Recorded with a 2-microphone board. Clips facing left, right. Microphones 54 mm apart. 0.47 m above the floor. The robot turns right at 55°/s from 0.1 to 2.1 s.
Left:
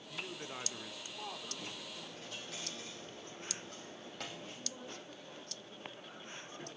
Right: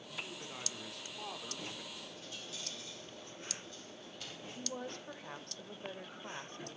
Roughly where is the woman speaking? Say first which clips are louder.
Right 5 dB; right.